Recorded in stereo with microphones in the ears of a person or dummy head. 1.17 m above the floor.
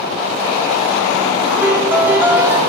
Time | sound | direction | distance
1.6 | a piano | 15° right (ahead or behind) | 2.5 m